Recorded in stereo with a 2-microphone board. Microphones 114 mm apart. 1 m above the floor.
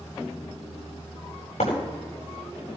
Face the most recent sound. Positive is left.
turn(degrees=80)